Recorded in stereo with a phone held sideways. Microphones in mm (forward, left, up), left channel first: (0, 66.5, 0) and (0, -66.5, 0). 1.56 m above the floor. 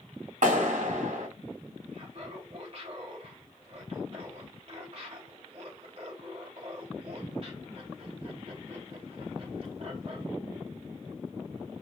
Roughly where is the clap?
Right.